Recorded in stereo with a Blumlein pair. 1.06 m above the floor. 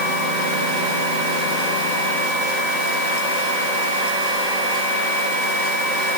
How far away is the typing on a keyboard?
No typing on a keyboard in this recording.